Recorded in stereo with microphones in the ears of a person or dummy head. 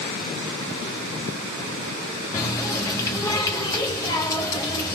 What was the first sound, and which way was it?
A running tap, 20° left (ahead or behind).